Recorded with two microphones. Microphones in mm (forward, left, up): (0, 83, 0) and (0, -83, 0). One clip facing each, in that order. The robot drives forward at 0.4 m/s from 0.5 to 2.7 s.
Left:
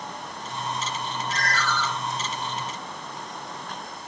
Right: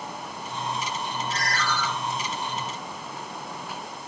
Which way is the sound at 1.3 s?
50° left (ahead or behind).